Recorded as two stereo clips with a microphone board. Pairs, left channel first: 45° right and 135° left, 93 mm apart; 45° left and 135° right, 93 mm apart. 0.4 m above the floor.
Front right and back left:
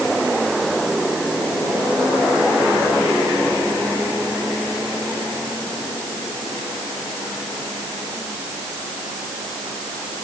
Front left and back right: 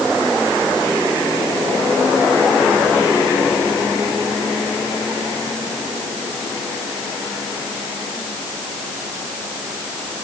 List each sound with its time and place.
Only background noise.